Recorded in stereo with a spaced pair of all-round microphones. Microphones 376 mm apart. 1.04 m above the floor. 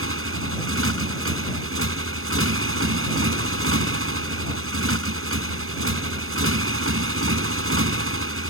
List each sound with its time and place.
0.0 s a motorcycle: 35° right (ahead or behind)